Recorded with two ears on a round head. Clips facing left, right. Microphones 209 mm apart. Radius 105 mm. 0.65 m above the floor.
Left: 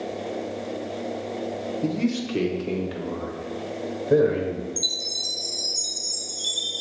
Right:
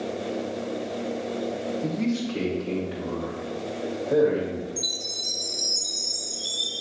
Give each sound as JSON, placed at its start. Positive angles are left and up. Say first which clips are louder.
{"t": 1.8, "sound": "a man speaking", "louder": "left 3 dB", "side_deg": 45, "distance_m": 1.1}
{"t": 4.8, "sound": "a chime", "louder": "even", "side_deg": 20, "distance_m": 2.5}